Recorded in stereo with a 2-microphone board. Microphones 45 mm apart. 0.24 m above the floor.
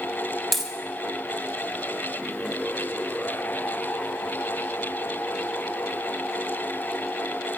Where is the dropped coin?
5° left (ahead or behind), 0.6 m.